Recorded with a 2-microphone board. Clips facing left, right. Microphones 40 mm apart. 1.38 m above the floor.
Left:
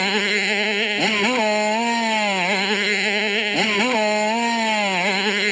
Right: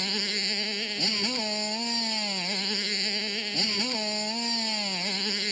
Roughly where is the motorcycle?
Left.